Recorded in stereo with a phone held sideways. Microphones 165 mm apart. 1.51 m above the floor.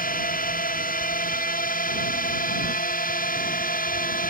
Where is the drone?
60° left (ahead or behind).